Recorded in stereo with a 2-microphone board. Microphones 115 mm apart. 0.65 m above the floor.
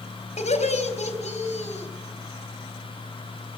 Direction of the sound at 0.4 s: 80° left.